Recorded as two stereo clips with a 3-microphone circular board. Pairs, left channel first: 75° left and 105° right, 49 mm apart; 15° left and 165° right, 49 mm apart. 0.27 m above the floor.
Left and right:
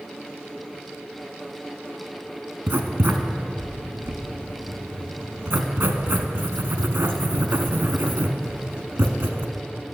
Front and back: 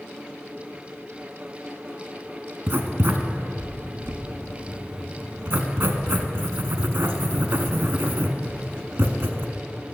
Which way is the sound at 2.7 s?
135° right.